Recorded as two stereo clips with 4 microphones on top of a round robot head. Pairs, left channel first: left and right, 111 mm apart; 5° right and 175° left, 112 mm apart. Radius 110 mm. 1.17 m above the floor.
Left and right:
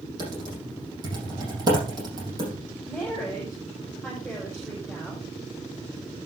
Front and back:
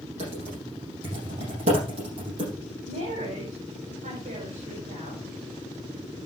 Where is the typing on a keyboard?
145° right, 6.5 m.